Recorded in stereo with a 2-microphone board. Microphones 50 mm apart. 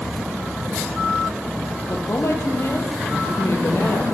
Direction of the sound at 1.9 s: 60° left (ahead or behind).